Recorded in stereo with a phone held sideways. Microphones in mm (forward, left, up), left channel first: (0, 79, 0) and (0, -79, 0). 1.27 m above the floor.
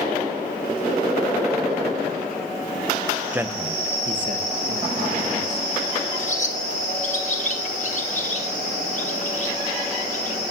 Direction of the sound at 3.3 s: 10° right (ahead or behind).